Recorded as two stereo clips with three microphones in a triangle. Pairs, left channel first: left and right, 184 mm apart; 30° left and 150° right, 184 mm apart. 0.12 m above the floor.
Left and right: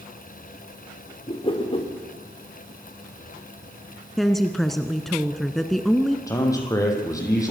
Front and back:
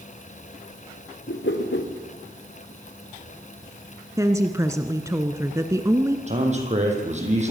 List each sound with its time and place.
1.3 s a whoosh: 30° left, 3.5 m
4.2 s a woman speaking: 175° left, 1.3 m
6.3 s a man speaking: 160° left, 5.5 m